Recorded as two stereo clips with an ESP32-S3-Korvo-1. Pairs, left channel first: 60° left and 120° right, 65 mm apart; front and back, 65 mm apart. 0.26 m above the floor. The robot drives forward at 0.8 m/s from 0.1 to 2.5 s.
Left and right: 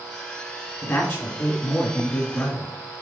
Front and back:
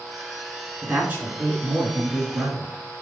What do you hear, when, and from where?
0.8 s a woman speaking: 110° left, 3 m; by 2.7 s 130° left, 3.5 m